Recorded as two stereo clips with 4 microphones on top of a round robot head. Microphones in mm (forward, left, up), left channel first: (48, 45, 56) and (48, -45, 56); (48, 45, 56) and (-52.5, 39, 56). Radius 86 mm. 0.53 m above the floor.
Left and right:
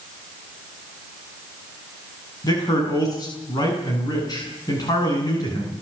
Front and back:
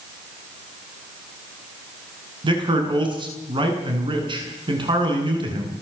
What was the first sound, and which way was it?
A man speaking, 145° left.